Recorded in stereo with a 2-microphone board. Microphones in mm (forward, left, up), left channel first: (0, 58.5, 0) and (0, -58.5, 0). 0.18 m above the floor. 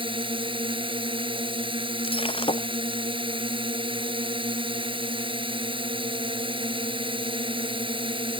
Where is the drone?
50° right (ahead or behind).